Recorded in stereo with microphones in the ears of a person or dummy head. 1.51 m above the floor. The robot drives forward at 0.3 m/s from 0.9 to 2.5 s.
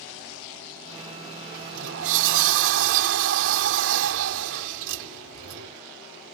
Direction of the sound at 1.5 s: 70° right (ahead or behind).